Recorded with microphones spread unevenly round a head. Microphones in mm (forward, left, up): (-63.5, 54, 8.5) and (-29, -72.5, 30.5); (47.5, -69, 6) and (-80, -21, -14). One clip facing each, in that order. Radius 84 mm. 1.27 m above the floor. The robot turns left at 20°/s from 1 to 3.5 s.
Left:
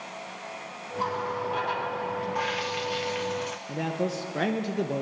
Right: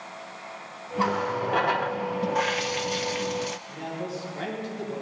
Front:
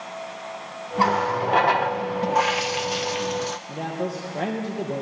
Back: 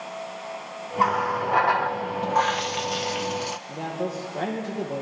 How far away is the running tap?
About 0.6 m.